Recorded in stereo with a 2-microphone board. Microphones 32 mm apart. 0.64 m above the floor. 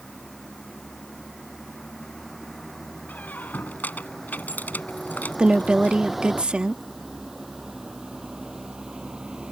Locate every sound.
0.0 s a vehicle: 15° left (ahead or behind); by 9.5 s 30° right (ahead or behind)
3.1 s a squeak: 85° left
5.4 s a woman speaking: 35° right (ahead or behind)